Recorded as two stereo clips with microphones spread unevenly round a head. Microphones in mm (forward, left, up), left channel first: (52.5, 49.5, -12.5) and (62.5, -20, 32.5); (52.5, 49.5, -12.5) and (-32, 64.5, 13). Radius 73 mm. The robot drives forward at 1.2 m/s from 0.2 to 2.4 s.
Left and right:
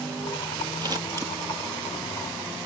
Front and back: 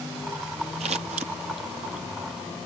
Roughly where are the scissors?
Behind right.